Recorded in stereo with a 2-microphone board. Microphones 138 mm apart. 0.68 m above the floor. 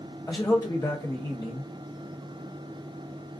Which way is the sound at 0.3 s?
30° left (ahead or behind).